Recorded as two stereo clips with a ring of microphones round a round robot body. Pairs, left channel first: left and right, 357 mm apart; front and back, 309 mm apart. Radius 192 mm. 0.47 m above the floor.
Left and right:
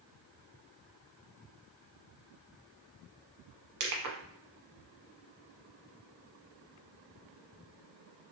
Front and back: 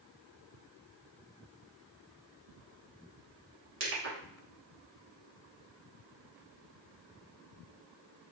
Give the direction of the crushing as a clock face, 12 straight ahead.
4 o'clock.